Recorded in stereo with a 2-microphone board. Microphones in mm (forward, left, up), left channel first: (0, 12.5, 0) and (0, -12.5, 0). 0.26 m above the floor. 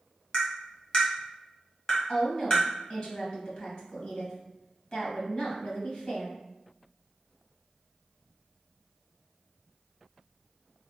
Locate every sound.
0.3 s tapping: 35° left (ahead or behind), 1.1 m
2.1 s a woman speaking: 40° left (ahead or behind), 1.5 m